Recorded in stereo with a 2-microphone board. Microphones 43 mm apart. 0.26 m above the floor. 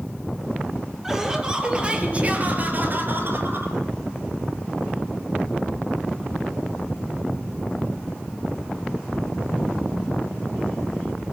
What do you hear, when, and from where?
1.0 s laughter: 10° right (ahead or behind), 5.5 m; by 3.8 s 55° right (ahead or behind), 5.5 m